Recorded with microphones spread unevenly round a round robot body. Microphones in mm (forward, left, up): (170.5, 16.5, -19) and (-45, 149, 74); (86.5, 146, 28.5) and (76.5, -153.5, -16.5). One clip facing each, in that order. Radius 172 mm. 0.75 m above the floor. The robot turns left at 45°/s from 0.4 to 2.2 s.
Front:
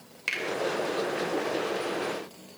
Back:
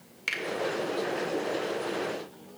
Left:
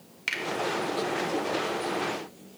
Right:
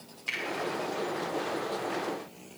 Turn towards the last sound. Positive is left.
turn(degrees=-5)